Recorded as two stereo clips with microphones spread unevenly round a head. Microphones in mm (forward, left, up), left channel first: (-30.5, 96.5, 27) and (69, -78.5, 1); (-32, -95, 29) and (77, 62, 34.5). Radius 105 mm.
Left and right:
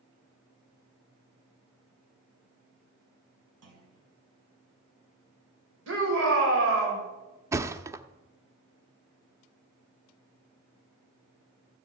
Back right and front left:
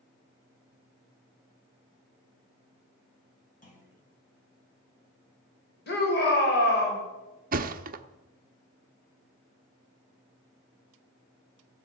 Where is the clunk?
75° right, 5.5 m.